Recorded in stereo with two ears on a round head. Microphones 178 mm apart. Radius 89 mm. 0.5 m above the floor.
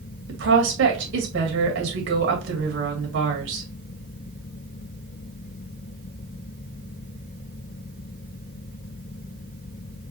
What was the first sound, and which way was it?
A woman speaking, 65° right (ahead or behind).